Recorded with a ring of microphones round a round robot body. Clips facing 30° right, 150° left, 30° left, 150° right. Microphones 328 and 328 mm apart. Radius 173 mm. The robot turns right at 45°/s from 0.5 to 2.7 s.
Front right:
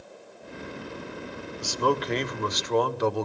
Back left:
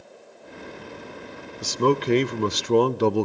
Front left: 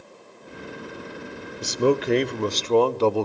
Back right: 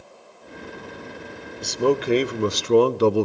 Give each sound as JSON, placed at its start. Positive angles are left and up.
{"t": 1.6, "sound": "a man speaking", "azimuth_deg": 105, "distance_m": 0.9}